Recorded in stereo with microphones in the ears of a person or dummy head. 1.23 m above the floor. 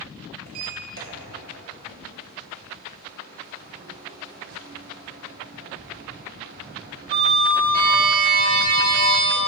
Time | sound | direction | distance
0.5 | a sliding door | 50° right (ahead or behind) | 1.9 m